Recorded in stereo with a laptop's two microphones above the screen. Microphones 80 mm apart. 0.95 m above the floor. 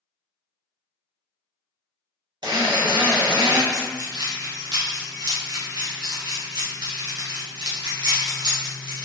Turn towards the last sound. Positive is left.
turn(degrees=-60)  # may be behind; listen again after turning